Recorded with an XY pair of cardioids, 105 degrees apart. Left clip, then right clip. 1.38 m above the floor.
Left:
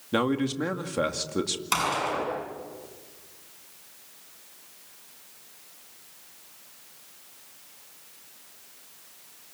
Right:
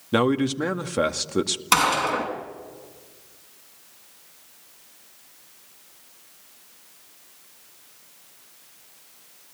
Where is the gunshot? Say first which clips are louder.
Right 7 dB; 50° right, 7 m.